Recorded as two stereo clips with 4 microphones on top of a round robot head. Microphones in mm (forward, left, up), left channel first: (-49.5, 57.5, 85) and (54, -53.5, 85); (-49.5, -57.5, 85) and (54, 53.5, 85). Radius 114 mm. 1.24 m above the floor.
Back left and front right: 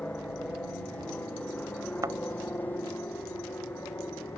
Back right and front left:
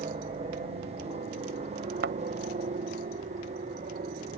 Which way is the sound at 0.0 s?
55° left.